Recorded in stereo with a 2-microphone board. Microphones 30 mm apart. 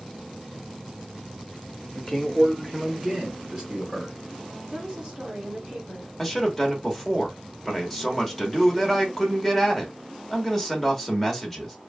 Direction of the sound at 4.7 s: 30° right (ahead or behind).